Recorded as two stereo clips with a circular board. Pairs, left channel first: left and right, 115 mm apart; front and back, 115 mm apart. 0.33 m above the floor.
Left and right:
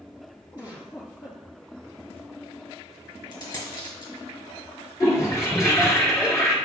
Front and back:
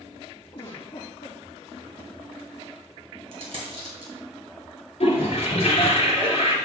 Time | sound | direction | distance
0.5 | a giggle | 45° left | 3 m
3.3 | a dropped coin | 140° left | 2.5 m
5.0 | a toilet flushing | 30° left | 3 m